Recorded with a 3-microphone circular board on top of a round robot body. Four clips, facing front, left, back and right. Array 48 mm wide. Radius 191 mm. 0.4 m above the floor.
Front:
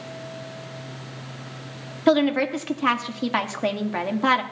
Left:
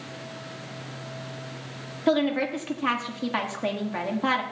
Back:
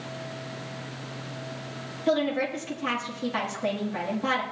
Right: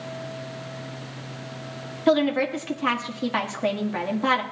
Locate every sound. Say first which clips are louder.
2.1 s a woman speaking: right 3 dB, front 6 dB; 10° right, 1.7 m